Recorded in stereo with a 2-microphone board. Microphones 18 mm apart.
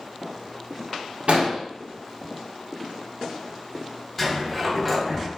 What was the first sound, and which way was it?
An explosion, 75° right (ahead or behind).